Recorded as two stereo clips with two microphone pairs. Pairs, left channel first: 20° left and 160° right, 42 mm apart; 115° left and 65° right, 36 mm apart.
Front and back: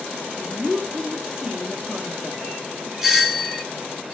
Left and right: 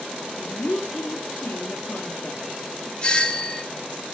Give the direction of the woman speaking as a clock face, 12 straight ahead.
8 o'clock.